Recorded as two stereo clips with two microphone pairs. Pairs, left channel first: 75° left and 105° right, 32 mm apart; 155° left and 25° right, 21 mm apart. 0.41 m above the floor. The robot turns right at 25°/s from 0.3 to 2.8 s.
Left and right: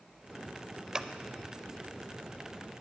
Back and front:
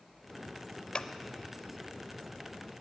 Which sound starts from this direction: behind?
Scissors, at 0.9 s.